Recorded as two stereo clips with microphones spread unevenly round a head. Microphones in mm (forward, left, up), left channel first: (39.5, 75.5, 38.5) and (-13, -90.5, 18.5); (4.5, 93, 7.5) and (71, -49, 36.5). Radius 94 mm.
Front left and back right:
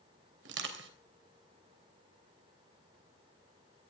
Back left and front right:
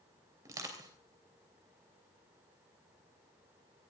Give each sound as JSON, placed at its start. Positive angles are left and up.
{"t": 0.5, "sound": "crushing", "azimuth_deg": -135, "distance_m": 3.0}